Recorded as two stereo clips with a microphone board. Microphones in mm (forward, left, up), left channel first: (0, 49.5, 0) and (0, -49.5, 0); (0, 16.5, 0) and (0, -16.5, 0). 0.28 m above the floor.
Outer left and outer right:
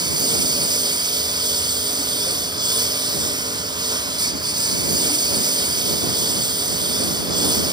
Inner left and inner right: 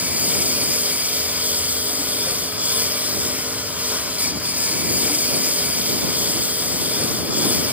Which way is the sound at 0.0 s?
50° right (ahead or behind).